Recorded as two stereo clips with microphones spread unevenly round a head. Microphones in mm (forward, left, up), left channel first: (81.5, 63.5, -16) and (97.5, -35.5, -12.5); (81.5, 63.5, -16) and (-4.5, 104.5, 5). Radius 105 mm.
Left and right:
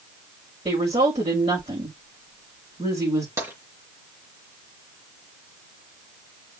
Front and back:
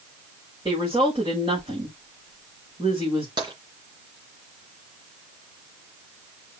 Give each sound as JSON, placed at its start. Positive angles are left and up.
{"t": 0.7, "sound": "a woman speaking", "azimuth_deg": -140, "distance_m": 5.0}
{"t": 3.4, "sound": "tapping", "azimuth_deg": -150, "distance_m": 3.5}